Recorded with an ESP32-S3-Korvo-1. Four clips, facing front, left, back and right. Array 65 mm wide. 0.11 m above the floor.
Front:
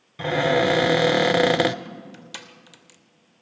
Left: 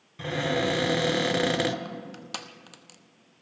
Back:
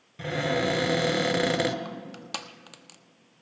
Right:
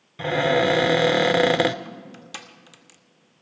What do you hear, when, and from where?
0.2 s a cupboard door: 45° right, 0.6 m
1.9 s crushing: 150° left, 0.8 m